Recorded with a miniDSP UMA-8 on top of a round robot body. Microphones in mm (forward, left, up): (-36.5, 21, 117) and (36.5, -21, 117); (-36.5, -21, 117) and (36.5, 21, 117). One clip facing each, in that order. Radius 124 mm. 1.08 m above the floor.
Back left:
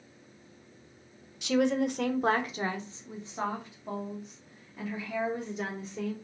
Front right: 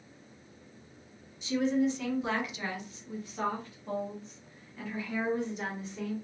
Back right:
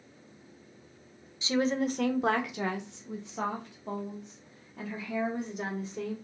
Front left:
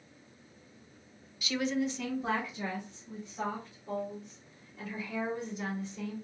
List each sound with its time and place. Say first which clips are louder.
1.4 s a woman speaking: back left 2 dB, back right 4 dB; 145° left, 0.7 m; by 6.2 s 120° right, 2.5 m